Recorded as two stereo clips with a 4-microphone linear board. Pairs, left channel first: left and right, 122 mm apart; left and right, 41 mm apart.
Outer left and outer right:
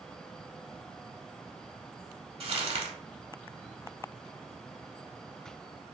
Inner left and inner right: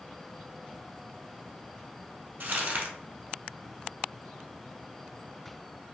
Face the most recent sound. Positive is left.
turn(degrees=-50)  # may be behind; listen again after turning